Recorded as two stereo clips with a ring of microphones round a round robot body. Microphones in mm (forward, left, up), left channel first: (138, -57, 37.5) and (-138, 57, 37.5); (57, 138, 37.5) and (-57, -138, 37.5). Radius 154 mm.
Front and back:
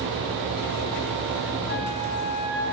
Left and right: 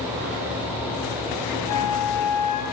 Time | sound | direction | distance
1.7 | a flute | 35° left | 3 m